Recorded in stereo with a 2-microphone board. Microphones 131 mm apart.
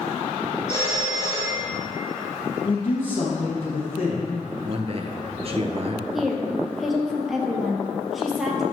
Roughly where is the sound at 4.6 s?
Right.